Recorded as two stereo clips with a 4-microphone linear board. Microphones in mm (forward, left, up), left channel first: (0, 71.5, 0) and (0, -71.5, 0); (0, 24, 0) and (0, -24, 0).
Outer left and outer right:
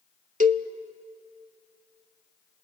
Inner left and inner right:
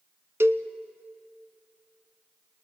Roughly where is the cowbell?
Right.